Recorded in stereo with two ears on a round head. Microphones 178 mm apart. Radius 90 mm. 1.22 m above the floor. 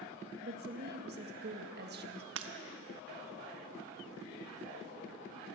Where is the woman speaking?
55° right (ahead or behind), 1.6 m.